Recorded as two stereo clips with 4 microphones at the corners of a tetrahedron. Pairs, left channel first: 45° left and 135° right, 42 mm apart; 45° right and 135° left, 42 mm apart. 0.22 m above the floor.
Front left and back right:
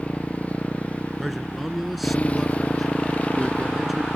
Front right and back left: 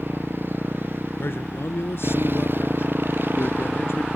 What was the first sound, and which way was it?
A motorcycle, 100° left.